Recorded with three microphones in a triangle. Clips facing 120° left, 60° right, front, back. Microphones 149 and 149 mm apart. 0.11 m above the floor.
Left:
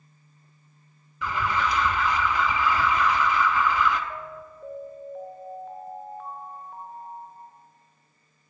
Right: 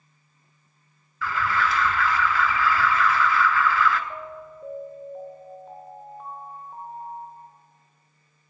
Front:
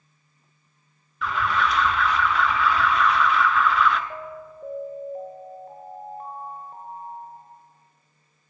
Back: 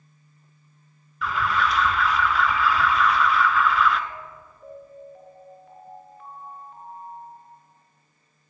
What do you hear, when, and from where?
1.2 s an alarm: 90° left, 0.8 m
4.1 s an alarm: 5° left, 1.4 m